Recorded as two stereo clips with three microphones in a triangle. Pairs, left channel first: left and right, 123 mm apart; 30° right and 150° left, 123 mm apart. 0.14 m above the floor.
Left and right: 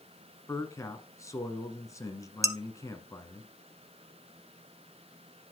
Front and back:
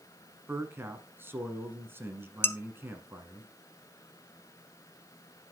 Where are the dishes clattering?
80° right, 0.9 m.